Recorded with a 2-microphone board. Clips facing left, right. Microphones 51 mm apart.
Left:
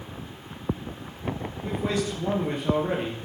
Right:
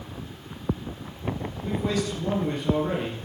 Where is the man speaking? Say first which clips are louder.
Even; 15° left (ahead or behind), 3 m.